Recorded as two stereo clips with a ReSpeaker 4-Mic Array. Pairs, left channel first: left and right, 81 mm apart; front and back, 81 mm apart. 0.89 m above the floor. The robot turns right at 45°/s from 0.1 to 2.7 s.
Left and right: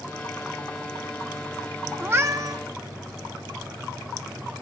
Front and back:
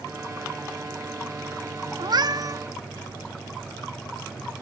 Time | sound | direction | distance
2.0 | a cat meowing | 155° right | 0.7 m